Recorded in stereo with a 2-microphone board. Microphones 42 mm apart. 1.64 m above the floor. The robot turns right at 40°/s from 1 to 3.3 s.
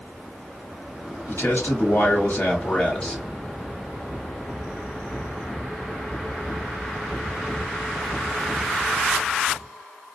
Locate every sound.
1.3 s a man speaking: 90° left, 1.3 m; by 3.2 s 165° left, 1.3 m